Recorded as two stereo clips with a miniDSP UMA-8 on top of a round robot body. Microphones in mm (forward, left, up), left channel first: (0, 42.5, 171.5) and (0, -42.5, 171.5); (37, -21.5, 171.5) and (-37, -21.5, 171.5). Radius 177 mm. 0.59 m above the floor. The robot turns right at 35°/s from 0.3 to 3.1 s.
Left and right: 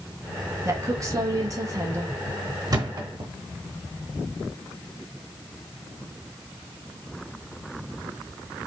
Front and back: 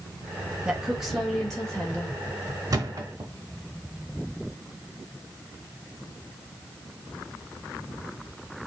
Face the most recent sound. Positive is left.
turn(degrees=-125)